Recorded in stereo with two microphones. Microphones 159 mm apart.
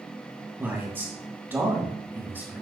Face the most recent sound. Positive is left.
turn(degrees=-10)  # may be behind; listen again after turning